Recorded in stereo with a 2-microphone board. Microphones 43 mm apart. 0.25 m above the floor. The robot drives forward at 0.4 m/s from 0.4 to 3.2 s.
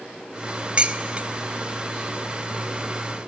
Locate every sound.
0.8 s dishes clattering: 30° right (ahead or behind), 0.7 m